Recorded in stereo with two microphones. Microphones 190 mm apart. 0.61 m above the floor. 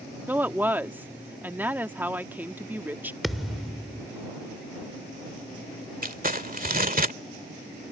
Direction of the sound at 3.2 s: Centre (ahead or behind).